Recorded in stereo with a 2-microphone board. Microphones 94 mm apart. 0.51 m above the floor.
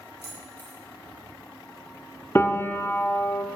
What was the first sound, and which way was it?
Keys jangling, 15° left (ahead or behind).